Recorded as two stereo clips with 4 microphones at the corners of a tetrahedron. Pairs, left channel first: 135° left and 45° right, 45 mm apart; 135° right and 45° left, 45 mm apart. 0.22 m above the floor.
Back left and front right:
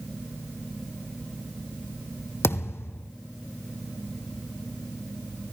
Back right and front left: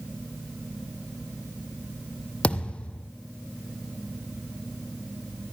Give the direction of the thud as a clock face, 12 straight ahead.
7 o'clock.